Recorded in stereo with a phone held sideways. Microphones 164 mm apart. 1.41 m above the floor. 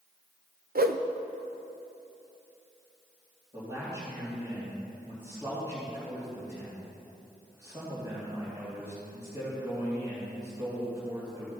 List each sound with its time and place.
0.8 s a whoosh: 70° right (ahead or behind), 0.5 m
3.5 s a man speaking: 25° right (ahead or behind), 3 m